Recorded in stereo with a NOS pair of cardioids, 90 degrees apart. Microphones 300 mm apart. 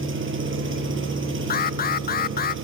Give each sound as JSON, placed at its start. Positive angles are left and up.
{"t": 0.0, "sound": "an engine running", "azimuth_deg": -40, "distance_m": 8.0}
{"t": 1.5, "sound": "an alarm", "azimuth_deg": 30, "distance_m": 0.5}